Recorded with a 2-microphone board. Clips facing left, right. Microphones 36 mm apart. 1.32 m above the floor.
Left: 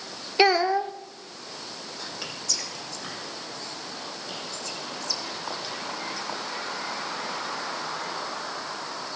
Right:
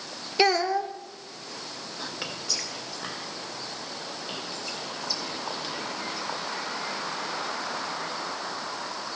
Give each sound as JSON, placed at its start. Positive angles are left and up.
{"t": 0.4, "sound": "a child speaking", "side_deg": 15, "distance_m": 0.5}
{"t": 2.0, "sound": "whispering", "side_deg": -20, "distance_m": 1.7}